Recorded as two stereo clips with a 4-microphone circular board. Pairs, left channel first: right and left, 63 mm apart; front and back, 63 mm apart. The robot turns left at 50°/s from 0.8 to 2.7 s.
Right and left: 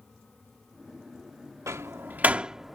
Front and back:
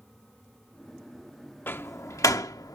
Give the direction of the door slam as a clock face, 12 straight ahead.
10 o'clock.